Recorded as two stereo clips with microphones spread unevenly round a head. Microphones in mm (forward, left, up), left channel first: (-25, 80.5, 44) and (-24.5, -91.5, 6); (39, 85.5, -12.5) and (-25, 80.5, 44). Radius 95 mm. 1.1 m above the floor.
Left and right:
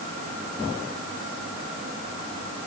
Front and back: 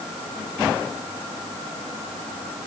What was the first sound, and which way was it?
Only background noise.